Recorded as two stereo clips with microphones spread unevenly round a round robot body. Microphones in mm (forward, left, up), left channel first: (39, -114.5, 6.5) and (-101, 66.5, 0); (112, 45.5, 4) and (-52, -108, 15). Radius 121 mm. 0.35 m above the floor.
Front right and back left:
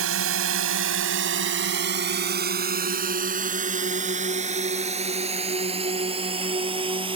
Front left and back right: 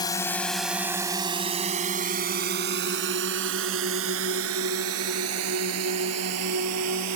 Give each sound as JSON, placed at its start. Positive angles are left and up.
{"t": 0.0, "sound": "a drone", "azimuth_deg": 115}